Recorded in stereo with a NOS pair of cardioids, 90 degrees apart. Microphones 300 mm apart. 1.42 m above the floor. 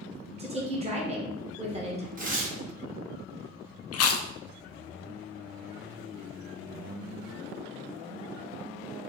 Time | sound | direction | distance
0.4 | a woman speaking | 20° right | 1.0 m
2.2 | tearing paper | 30° right | 1.1 m
3.9 | chewing | 55° left | 0.5 m